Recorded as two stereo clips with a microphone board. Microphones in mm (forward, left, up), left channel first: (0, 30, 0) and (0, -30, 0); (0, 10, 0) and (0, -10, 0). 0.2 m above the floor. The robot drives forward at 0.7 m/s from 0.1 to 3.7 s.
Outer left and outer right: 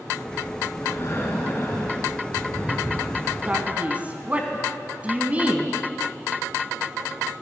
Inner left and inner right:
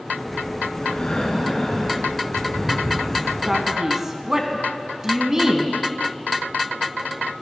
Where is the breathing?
55° left (ahead or behind), 2 m; by 3.8 s 30° left (ahead or behind), 3.5 m.